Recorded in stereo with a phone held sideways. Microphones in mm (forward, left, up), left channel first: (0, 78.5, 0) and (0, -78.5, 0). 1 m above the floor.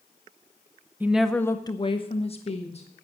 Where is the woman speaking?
15° right (ahead or behind), 0.7 m; by 2.9 s 40° left (ahead or behind), 1.6 m.